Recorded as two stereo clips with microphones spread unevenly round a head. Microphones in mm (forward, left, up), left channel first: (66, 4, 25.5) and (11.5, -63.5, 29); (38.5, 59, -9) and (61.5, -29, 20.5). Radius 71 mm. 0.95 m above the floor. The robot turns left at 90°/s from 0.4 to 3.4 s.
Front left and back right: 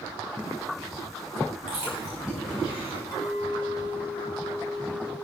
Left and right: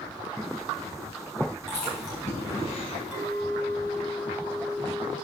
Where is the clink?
5° left, 5.5 m; by 5.1 s 20° right, 5.5 m.